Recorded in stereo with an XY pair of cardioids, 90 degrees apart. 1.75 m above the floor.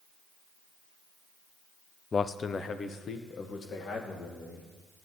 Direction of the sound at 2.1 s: 40° left.